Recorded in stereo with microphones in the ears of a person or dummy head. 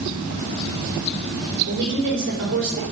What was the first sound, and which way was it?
A woman speaking, 60° right (ahead or behind).